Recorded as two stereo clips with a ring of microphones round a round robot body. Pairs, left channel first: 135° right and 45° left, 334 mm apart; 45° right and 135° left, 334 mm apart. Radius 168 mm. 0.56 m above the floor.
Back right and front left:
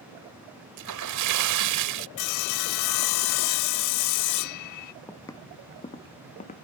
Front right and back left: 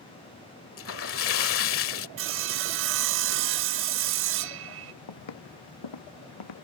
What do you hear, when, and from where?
0.8 s a splash: 5° left
2.2 s sawing: 170° right
5.1 s footsteps: 50° right; by 6.7 s 65° right